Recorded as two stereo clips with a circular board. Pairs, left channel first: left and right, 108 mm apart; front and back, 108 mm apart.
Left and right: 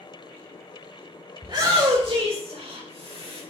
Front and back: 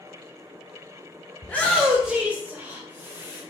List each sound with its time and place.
1.4 s a shout: 65° right, 1.7 m; by 3.4 s 115° right, 4 m